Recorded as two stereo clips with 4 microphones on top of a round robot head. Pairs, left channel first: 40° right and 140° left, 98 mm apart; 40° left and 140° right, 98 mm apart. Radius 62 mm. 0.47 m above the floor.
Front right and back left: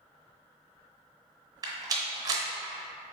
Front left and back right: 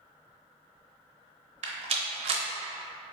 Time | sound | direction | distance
1.6 | a rattle | 165° right | 0.7 m